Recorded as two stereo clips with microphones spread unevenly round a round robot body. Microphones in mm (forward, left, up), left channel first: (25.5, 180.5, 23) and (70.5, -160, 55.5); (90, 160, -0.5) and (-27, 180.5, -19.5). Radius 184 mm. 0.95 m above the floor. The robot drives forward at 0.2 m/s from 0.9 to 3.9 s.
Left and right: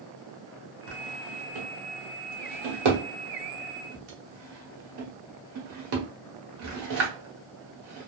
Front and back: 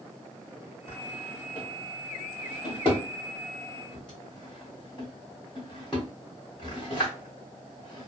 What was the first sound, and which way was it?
A drawer, 70° right.